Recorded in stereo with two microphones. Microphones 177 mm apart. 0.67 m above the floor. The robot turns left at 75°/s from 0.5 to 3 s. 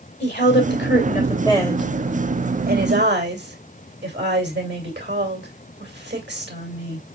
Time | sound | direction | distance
0.2 | a woman speaking | 100° left | 2.5 m